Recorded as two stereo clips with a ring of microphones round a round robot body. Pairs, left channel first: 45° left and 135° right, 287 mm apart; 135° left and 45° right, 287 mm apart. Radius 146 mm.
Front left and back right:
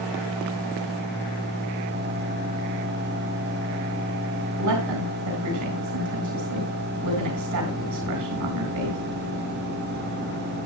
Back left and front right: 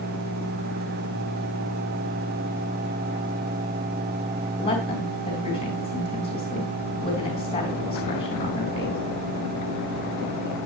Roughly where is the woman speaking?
Behind right.